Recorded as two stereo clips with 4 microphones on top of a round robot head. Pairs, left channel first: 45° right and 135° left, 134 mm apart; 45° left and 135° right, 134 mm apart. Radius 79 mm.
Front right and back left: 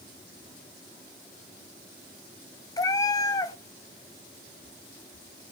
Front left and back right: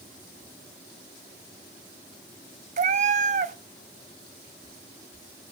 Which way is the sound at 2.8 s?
110° right.